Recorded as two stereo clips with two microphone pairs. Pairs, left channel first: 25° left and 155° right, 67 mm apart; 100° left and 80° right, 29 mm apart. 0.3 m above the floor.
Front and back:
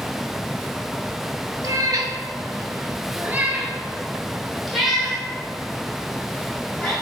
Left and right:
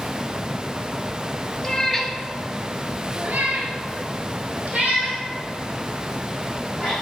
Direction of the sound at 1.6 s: 175° left.